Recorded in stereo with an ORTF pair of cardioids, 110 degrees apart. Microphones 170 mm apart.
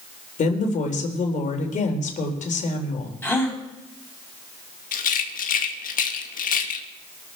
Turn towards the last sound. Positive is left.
turn(degrees=50)